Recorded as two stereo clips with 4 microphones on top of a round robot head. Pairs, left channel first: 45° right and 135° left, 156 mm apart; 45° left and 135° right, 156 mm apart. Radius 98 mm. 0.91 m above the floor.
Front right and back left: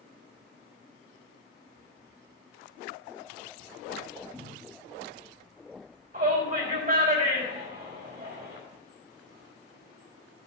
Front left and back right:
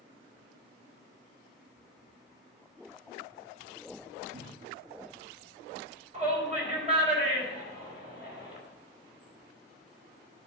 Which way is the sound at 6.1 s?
175° left.